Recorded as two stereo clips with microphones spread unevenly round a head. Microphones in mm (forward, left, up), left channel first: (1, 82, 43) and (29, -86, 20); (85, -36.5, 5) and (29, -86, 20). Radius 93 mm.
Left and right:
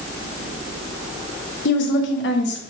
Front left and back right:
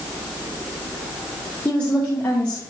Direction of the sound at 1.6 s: 120° left.